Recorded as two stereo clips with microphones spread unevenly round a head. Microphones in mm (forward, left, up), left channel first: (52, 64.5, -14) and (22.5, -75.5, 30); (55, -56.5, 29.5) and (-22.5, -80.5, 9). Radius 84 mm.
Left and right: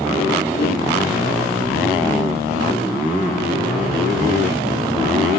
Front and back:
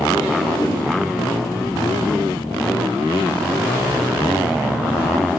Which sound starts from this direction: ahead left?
A whoosh, at 0.5 s.